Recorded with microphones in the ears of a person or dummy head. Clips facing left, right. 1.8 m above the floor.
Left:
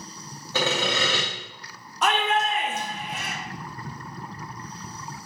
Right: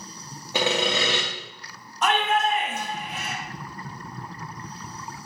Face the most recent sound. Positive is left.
turn(degrees=55)  # may be behind; listen again after turning